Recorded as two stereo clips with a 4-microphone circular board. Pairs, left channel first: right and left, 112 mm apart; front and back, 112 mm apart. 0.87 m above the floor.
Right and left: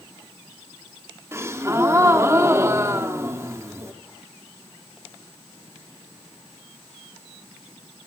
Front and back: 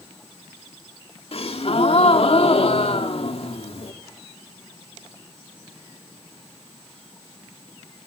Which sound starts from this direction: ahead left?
A gasp, at 1.3 s.